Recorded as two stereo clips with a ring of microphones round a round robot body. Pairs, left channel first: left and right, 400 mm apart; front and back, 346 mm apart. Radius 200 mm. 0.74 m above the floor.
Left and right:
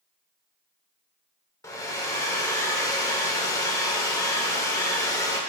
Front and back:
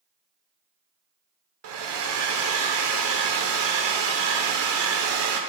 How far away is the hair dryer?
About 1.2 m.